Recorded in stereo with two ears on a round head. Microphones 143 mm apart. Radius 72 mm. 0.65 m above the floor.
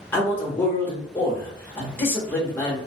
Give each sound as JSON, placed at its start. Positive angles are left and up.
{"t": 0.1, "sound": "a man speaking", "side_deg": 15, "distance_m": 1.1}